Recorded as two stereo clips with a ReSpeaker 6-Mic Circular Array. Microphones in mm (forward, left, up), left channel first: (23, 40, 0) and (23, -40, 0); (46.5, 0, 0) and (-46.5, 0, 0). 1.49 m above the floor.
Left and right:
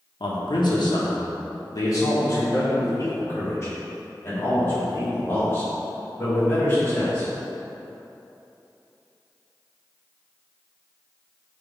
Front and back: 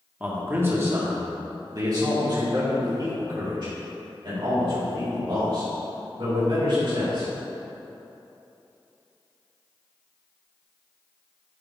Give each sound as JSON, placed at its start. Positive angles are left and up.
{"t": 0.2, "sound": "a man speaking", "azimuth_deg": 105, "distance_m": 1.3}